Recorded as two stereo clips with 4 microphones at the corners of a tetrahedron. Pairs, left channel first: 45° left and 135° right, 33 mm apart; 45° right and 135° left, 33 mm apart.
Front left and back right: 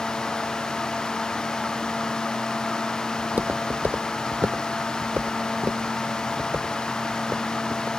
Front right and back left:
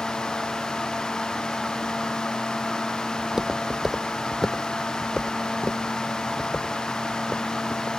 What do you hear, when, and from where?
3.2 s footsteps: 160° right; by 7.9 s 100° right